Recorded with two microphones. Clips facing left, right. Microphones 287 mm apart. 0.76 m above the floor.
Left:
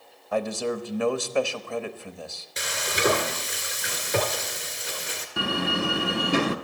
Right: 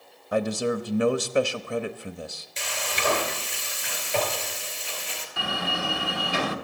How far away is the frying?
About 2.5 m.